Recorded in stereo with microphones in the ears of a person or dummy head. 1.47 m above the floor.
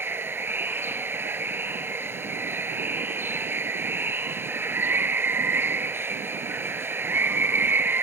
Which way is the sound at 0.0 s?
10° right (ahead or behind).